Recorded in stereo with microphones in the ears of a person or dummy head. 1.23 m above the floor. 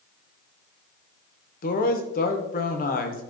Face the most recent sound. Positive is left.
turn(degrees=40)  # may be behind; listen again after turning